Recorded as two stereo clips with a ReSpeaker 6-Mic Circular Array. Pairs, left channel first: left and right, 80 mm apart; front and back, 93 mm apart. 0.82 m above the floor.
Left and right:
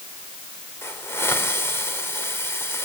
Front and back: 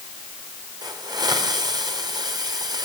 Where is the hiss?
145° left, 3.5 m.